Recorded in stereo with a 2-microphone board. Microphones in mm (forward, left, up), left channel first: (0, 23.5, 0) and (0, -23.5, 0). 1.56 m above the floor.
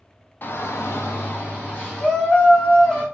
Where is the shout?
45° left (ahead or behind), 0.6 m; by 3.0 s 35° left (ahead or behind), 2.5 m.